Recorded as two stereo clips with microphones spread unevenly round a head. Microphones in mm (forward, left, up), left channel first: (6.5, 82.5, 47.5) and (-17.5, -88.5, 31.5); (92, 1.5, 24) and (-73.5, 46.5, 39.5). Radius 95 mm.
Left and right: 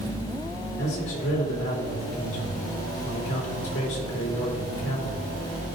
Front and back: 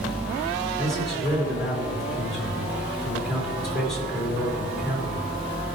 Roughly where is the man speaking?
Left.